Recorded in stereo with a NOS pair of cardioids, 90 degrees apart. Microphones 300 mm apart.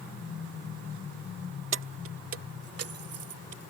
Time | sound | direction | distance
1.7 | keys jangling | 45° right | ?